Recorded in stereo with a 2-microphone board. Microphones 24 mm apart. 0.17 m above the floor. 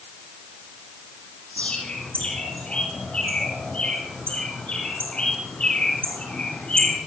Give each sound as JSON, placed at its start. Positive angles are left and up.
{"t": 1.6, "sound": "a bird", "side_deg": 60, "distance_m": 7.5}